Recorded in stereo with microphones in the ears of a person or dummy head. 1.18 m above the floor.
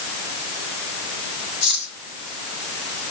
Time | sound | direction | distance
1.6 | cutlery clinking | 65° left (ahead or behind) | 4.5 m